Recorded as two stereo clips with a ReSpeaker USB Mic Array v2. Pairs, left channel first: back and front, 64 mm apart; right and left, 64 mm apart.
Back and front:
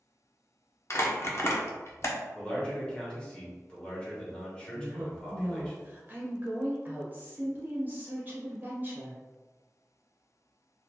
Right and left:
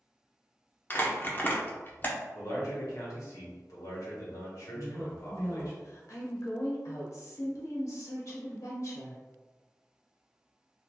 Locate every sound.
0.9 s crumpling: 145° right, 0.5 m
2.4 s a man speaking: 105° right, 1.2 m
4.7 s a woman speaking: 60° right, 1.0 m